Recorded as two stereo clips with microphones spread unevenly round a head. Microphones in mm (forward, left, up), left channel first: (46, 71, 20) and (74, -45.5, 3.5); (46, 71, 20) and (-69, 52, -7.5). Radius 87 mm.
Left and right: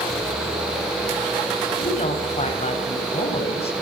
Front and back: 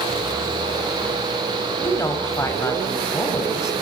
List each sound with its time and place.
1.8 s a woman speaking: 70° left, 8 m